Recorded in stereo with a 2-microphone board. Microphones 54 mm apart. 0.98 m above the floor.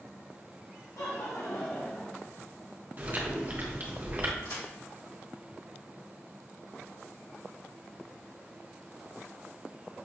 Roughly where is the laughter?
Left.